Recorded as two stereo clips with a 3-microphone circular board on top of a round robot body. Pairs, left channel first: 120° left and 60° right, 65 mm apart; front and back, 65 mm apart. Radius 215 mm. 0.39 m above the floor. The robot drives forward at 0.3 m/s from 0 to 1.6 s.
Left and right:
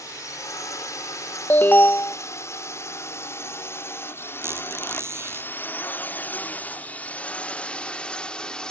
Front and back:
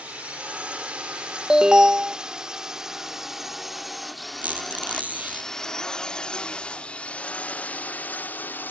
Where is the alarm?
110° left; by 2.2 s 115° left.